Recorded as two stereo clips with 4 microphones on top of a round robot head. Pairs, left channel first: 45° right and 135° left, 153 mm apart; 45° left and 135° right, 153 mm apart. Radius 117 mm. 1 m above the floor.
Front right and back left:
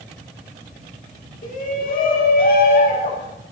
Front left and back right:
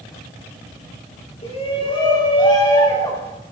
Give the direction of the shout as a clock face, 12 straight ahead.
12 o'clock.